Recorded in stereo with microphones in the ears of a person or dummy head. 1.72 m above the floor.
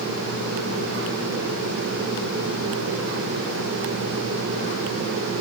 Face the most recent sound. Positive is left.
No sound to turn to.